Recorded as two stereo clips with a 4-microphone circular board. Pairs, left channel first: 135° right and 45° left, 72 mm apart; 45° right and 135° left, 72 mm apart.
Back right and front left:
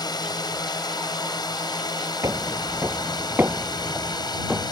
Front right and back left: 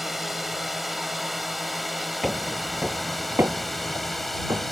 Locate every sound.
0.0 s a drone: 140° right; by 4.7 s 135° right
2.2 s footsteps: 40° left; by 4.7 s 125° left